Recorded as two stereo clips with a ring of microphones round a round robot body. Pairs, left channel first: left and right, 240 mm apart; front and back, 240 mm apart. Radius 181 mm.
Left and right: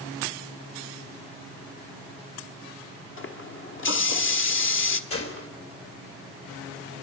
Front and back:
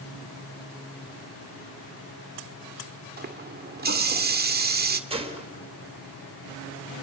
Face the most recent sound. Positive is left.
turn(degrees=115)